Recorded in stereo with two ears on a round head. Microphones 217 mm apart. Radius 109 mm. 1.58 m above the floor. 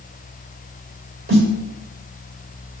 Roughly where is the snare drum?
Right.